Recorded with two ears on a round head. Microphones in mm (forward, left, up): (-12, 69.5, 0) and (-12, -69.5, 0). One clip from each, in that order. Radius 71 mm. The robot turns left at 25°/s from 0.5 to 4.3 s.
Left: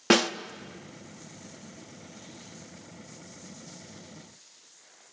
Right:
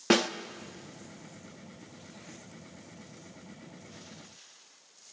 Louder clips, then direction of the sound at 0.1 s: Left 3 dB; 10° left (ahead or behind).